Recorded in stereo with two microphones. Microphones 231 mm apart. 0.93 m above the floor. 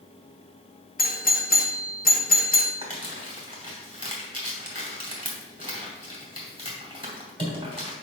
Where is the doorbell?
40° left (ahead or behind), 0.8 m.